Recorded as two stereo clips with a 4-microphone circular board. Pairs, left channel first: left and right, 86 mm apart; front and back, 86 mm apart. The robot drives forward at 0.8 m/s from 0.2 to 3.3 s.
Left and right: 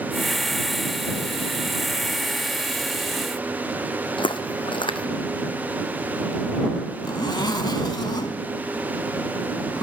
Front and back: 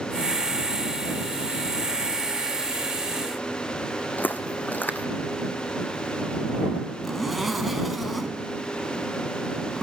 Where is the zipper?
90° left, 1.0 m.